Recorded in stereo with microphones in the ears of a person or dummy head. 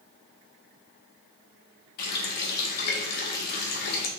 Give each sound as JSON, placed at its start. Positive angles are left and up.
{"t": 2.0, "sound": "a running tap", "side_deg": 60, "distance_m": 1.0}